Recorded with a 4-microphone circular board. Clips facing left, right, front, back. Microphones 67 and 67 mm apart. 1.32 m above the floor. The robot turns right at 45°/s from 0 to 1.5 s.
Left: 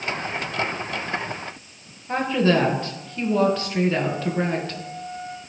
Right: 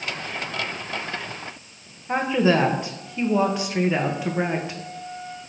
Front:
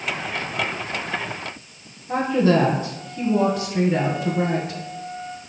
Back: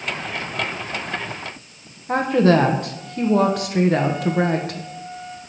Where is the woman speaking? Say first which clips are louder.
Even, back 2 dB; 165° right, 1.0 m.